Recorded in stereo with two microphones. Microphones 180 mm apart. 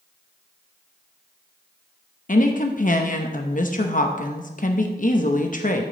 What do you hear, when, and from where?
2.3 s a woman speaking: 50° left (ahead or behind), 0.8 m